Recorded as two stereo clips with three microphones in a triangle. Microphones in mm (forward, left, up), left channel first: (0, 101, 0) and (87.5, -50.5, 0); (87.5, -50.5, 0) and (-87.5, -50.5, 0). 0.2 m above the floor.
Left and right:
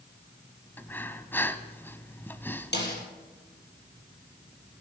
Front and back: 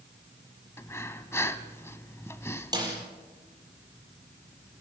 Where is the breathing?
55° left, 1.0 m.